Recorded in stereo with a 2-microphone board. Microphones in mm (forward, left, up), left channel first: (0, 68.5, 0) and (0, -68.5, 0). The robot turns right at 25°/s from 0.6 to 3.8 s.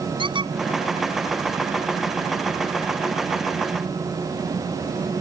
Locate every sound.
0.2 s a squeak: 35° right (ahead or behind)